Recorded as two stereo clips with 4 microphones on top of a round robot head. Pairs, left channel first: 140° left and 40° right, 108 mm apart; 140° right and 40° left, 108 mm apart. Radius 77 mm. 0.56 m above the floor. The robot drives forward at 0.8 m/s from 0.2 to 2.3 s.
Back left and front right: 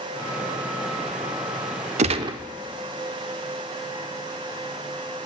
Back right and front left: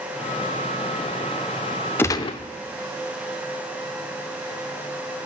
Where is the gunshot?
65° right, 0.5 m; by 2.4 s 95° right, 0.5 m.